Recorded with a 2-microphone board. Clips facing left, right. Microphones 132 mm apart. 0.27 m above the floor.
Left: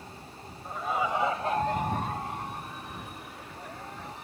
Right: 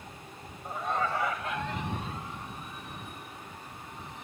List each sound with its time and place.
0.7 s laughter: 10° right (ahead or behind); by 4.2 s 75° left (ahead or behind)